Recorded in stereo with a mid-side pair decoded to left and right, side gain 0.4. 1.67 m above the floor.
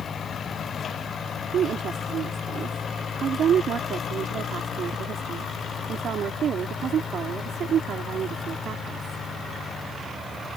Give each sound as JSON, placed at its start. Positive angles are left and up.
{"t": 1.5, "sound": "a woman speaking", "azimuth_deg": -70}